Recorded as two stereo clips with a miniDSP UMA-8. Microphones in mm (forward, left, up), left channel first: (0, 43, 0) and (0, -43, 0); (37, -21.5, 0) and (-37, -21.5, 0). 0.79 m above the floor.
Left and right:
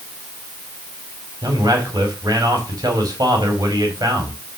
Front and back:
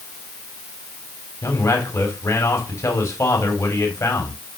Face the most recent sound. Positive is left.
turn(degrees=-50)